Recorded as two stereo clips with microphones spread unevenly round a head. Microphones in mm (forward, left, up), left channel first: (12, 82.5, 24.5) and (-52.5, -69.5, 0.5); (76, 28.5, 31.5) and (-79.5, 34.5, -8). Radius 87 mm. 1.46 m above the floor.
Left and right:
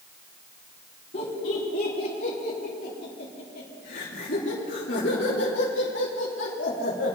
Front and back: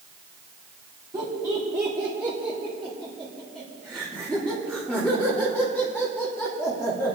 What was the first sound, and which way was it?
Laughter, 110° left.